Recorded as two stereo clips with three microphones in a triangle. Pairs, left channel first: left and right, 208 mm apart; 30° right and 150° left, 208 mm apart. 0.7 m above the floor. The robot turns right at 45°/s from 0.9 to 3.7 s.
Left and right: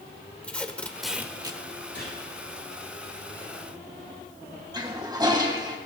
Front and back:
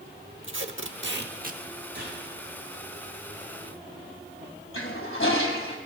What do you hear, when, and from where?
0.4 s tape being pulled: 175° left, 0.9 m; by 1.6 s 155° right, 0.9 m
1.9 s a gunshot: 120° left, 7.5 m; by 2.2 s 130° left, 7.5 m
4.7 s a toilet flushing: 20° right, 1.9 m